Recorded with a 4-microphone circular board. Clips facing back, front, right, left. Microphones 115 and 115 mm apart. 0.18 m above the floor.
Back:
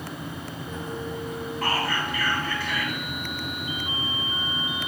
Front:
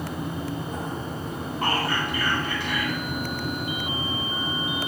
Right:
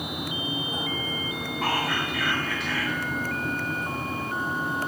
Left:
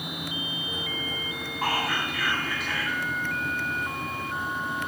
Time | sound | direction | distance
1.6 | whispering | 5° left | 1.0 m